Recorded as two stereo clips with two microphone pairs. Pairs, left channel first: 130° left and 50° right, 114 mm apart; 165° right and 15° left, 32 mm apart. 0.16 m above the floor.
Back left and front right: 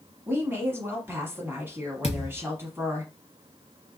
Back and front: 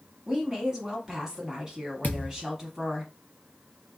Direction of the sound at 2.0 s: 160° left.